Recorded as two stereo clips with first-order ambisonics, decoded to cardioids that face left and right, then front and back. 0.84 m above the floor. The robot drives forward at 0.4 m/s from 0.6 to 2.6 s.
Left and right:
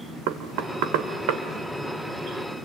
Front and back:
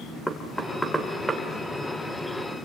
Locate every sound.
0.3 s knocking: 90° right, 2 m; by 1.4 s 100° right, 2 m